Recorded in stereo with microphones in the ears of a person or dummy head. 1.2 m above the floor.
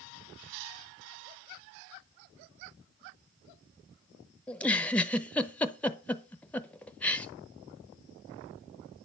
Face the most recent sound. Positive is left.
turn(degrees=5)  # may be behind; listen again after turning